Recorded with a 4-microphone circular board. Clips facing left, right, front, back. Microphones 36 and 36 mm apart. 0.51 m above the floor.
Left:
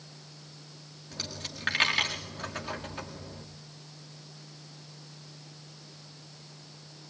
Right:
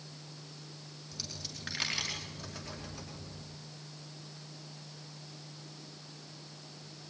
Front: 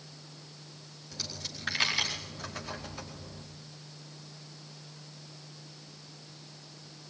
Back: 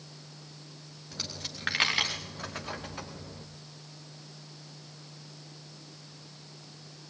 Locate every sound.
1.1 s a dropped coin: 135° left, 4.5 m